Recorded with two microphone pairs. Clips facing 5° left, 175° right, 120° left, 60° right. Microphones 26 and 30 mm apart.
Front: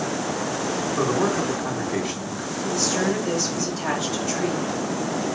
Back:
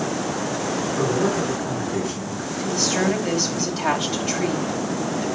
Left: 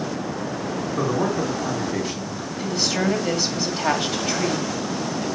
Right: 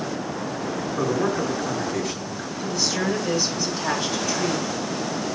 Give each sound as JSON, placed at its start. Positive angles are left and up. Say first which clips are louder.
{"t": 1.0, "sound": "a man speaking", "louder": "even, even", "azimuth_deg": 55, "distance_m": 3.5}
{"t": 2.6, "sound": "a woman speaking", "louder": "back 2 dB, left 2 dB", "azimuth_deg": 140, "distance_m": 2.5}